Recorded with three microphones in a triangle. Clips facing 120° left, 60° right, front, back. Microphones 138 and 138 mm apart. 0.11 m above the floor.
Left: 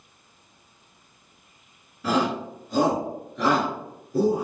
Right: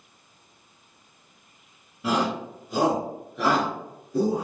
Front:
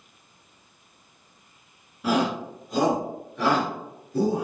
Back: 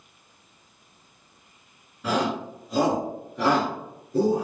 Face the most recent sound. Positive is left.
turn(degrees=-160)